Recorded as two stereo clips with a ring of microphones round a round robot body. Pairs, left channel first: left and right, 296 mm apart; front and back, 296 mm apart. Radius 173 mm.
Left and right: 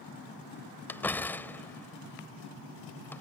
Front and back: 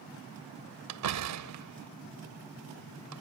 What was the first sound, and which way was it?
A door slam, 175° left.